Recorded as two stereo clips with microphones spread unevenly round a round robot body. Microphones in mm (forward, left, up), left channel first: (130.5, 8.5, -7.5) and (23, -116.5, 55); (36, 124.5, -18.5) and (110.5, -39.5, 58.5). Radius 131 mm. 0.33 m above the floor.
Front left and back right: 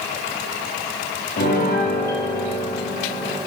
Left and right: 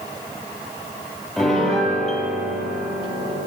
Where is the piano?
25° left, 9 m.